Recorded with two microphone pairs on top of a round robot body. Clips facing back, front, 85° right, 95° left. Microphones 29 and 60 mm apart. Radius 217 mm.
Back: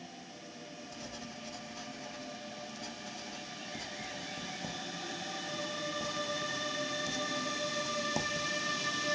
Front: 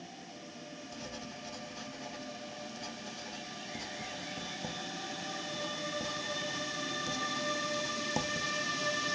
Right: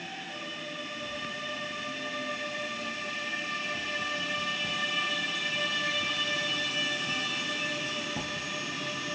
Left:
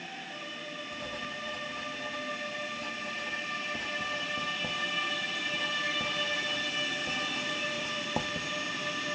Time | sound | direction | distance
0.9 | writing | 95° left | 0.5 m